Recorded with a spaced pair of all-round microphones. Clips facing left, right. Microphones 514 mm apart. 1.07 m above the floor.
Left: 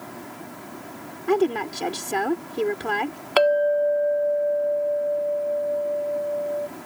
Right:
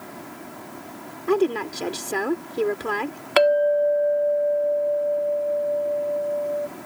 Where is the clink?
45° right (ahead or behind).